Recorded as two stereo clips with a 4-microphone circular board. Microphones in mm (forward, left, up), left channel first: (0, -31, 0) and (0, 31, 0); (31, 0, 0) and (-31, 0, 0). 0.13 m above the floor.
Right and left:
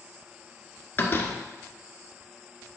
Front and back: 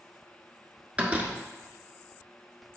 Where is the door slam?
125° right, 1.2 m.